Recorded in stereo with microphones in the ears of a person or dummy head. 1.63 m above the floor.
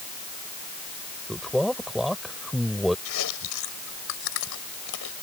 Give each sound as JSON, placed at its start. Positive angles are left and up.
{"t": 1.3, "sound": "a man speaking", "side_deg": -5}
{"t": 3.0, "sound": "chewing", "side_deg": 70}